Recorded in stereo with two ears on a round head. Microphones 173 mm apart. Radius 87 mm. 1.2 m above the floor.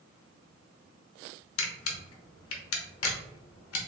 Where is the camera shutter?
80° left, 0.9 m.